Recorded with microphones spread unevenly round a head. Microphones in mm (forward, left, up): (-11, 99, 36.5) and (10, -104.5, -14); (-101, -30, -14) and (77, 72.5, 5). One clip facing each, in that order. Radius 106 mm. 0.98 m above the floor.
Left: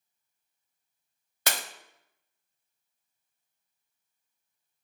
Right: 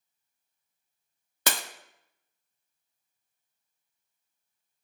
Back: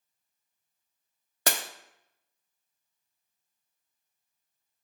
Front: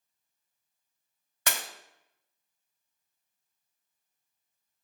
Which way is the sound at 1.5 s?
90° right.